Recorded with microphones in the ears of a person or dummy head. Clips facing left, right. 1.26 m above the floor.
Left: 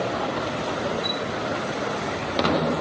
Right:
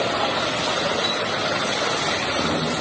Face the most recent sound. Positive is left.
turn(degrees=-70)  # may be behind; listen again after turning